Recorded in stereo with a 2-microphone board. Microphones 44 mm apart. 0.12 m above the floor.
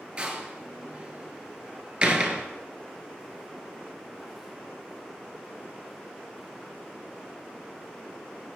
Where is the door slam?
20° right (ahead or behind), 1.3 m.